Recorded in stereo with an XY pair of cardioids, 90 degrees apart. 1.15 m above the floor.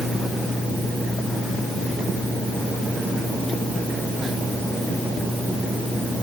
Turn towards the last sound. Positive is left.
No sound to turn to.